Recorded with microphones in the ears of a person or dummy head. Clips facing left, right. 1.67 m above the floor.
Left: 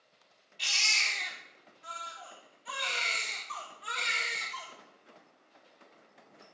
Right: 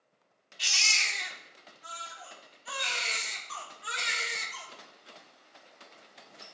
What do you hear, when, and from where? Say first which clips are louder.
0.6 s a baby crying: right 1 dB; 5° right (ahead or behind), 1.2 m